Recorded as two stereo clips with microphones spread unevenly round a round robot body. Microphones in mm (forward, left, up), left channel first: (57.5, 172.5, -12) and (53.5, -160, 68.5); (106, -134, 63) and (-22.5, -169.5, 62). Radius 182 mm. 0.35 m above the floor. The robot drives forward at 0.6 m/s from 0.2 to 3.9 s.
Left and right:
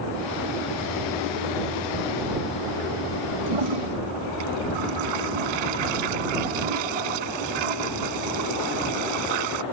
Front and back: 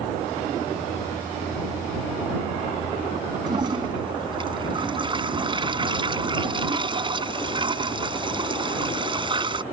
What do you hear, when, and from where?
3.5 s a toilet flushing: 105° right; by 9.6 s 110° right